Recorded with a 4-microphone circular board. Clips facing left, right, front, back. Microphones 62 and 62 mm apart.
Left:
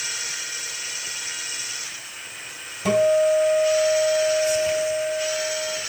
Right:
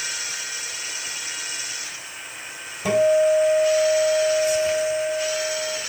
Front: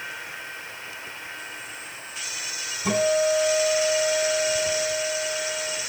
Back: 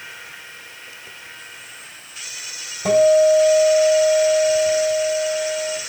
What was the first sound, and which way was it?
A guitar, 165° right.